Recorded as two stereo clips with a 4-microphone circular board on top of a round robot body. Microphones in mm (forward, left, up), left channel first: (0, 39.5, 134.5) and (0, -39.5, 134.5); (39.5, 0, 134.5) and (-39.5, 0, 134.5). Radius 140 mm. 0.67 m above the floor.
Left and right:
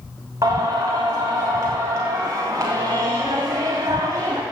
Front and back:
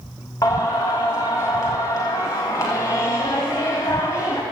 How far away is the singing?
About 0.5 m.